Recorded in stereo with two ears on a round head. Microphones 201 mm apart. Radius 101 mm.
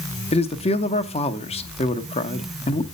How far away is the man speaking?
About 0.7 m.